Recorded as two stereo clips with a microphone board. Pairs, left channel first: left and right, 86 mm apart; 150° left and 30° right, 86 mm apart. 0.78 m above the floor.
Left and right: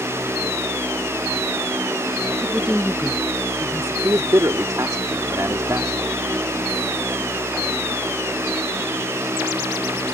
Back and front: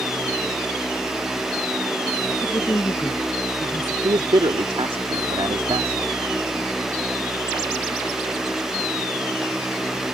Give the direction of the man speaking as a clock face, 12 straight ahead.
1 o'clock.